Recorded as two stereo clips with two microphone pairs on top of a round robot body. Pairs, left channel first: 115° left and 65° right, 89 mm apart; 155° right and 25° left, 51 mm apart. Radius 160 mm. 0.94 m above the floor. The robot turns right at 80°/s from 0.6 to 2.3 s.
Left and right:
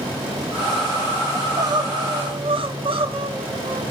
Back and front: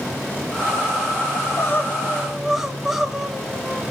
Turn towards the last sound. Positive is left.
turn(degrees=-55)